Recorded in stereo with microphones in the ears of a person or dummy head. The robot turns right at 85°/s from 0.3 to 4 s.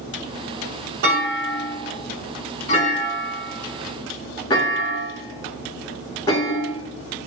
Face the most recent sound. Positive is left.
turn(degrees=15)  # may be behind; listen again after turning